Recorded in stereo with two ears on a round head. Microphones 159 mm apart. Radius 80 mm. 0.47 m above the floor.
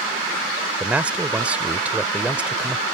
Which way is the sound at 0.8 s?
10° right (ahead or behind).